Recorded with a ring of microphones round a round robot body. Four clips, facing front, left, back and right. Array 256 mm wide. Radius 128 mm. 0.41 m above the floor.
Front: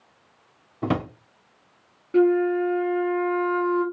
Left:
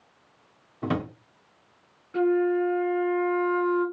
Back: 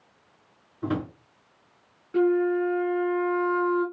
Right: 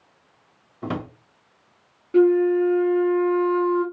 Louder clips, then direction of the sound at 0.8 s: Left 1 dB, front 3 dB; 5° left.